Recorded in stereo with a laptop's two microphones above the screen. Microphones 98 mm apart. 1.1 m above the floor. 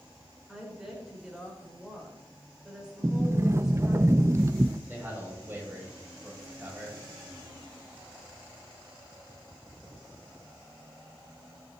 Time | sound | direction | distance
0.5 | a woman speaking | 5° right (ahead or behind) | 4 m
3.0 | a sliding door | 30° right (ahead or behind) | 0.6 m
4.9 | a man speaking | 20° right (ahead or behind) | 7 m